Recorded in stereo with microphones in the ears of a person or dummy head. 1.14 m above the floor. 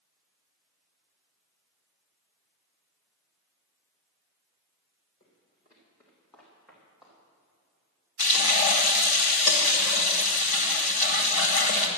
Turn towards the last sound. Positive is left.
turn(degrees=40)  # may be behind; listen again after turning